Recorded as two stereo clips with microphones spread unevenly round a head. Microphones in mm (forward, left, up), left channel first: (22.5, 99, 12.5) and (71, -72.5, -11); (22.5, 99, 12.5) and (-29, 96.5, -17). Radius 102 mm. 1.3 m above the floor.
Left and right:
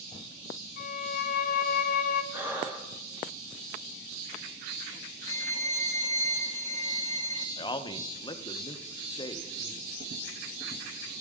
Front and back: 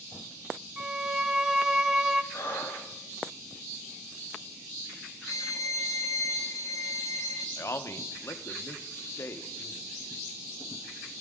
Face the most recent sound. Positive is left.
turn(degrees=40)